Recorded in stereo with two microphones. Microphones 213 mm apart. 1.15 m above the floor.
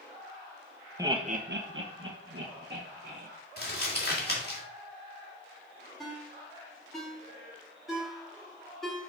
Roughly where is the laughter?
Centre.